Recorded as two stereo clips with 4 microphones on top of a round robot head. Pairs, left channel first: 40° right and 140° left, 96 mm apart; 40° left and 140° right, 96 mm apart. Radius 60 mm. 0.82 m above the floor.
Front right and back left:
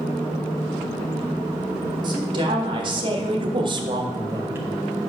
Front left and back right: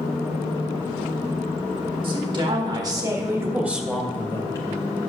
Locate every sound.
2.0 s a woman speaking: 175° right, 3 m; by 4.7 s 75° left, 1.5 m